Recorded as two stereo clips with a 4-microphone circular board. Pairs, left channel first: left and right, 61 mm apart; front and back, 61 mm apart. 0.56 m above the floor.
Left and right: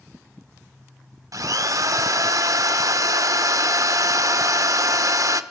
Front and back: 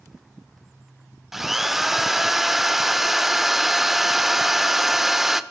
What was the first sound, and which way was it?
A drill, 95° right.